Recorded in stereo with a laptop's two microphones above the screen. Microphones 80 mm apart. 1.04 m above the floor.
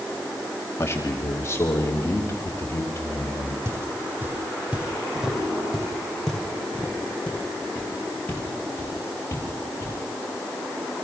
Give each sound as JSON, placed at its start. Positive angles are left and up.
{"t": 0.8, "sound": "a man speaking", "side_deg": 35, "distance_m": 2.0}
{"t": 3.6, "sound": "footsteps", "side_deg": -30, "distance_m": 2.5}